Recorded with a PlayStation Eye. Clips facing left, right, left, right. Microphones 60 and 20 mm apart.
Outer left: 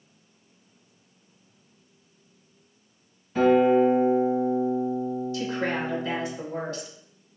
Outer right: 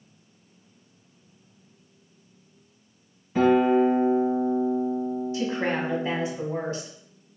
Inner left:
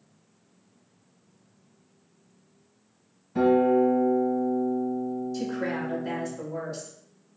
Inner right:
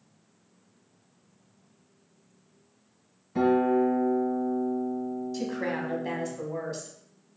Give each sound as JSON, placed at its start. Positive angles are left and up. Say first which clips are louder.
{"t": 3.4, "sound": "a guitar", "louder": "outer left 1 dB, inner left 2 dB", "side_deg": -15, "distance_m": 2.0}
{"t": 5.3, "sound": "a woman speaking", "louder": "outer right 3 dB, inner right 1 dB", "side_deg": -25, "distance_m": 1.6}